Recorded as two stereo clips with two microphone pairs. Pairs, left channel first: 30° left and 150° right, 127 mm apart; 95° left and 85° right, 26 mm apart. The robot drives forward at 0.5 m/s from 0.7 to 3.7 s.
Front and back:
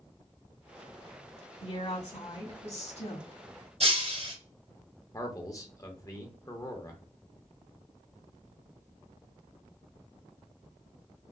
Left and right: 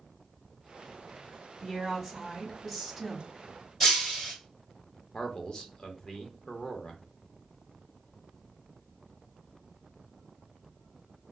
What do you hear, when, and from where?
1.6 s a woman speaking: straight ahead, 1.8 m
3.8 s breaking glass: 170° left, 2 m
5.1 s a man speaking: 60° left, 0.8 m